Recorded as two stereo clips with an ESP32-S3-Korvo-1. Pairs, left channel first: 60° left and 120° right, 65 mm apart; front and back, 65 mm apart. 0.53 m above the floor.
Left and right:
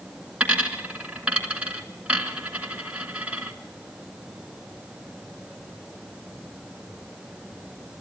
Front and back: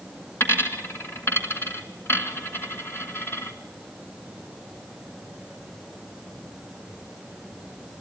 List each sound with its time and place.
0.4 s a dropped coin: 50° right, 2 m